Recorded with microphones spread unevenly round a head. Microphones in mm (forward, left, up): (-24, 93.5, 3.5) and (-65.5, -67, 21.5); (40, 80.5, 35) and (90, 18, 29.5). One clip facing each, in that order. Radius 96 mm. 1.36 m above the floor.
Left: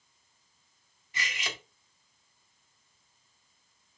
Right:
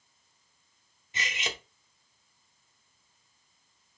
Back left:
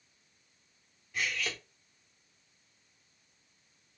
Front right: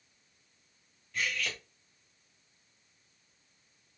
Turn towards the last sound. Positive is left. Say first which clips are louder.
# right 2 dB, even
turn(degrees=-155)